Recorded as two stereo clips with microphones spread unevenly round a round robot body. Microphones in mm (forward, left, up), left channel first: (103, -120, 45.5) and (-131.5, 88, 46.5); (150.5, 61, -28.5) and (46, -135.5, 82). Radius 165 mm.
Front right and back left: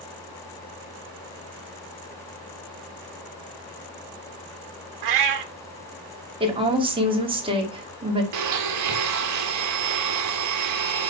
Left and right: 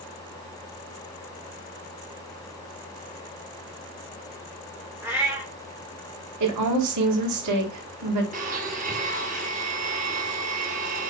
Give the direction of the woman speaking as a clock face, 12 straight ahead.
5 o'clock.